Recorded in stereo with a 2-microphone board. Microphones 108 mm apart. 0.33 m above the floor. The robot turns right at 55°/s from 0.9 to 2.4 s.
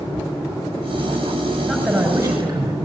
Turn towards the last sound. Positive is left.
turn(degrees=-145)